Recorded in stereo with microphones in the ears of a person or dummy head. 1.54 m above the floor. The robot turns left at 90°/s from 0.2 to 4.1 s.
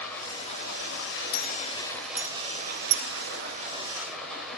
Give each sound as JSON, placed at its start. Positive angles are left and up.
{"t": 0.0, "sound": "running water", "azimuth_deg": 165, "distance_m": 3.5}
{"t": 1.3, "sound": "a clink", "side_deg": 45, "distance_m": 1.0}